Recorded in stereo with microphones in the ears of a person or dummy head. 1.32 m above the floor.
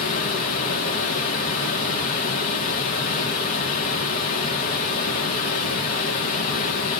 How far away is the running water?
About 0.9 m.